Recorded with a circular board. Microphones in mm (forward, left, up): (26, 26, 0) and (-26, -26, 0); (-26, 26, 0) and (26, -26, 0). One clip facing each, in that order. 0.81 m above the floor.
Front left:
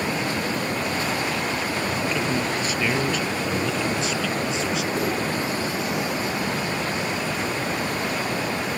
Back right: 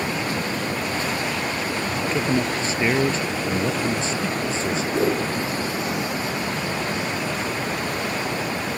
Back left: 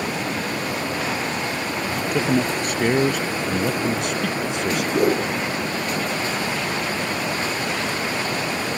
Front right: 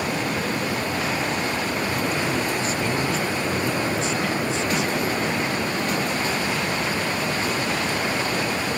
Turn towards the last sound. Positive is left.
turn(degrees=165)